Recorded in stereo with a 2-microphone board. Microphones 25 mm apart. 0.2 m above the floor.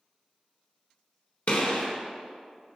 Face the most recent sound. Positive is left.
turn(degrees=55)  # may be behind; listen again after turning